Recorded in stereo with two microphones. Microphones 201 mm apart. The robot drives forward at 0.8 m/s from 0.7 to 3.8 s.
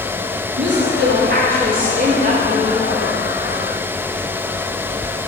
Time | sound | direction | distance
0.6 | a woman speaking | 65° right (ahead or behind) | 1.0 m